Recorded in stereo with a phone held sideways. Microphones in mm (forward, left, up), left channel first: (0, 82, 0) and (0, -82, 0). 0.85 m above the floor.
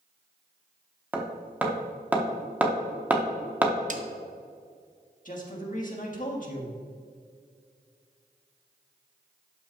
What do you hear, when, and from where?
1.1 s hammering: 10° right (ahead or behind), 0.9 m
3.9 s a snare drum: 50° right (ahead or behind), 0.6 m
5.2 s a man speaking: 50° left (ahead or behind), 1.5 m